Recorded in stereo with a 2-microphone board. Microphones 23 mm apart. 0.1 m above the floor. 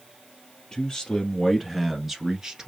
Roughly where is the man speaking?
Left.